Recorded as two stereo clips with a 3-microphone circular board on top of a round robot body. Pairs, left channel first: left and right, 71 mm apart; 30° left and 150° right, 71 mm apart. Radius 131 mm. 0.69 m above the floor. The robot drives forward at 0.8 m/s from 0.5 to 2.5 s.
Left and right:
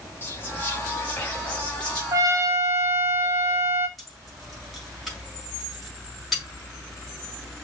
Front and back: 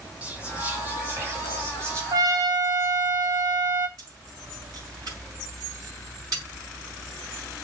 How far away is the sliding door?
I don't hear a sliding door.